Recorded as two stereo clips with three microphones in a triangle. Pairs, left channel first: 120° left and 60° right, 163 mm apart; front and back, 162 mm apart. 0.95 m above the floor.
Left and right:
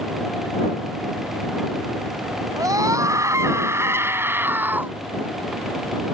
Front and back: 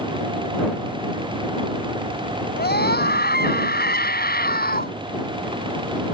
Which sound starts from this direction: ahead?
A scream, at 2.6 s.